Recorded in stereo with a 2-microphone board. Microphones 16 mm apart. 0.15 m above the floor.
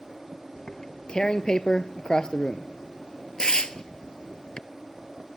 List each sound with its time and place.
0.6 s tearing paper: 50° left (ahead or behind), 0.6 m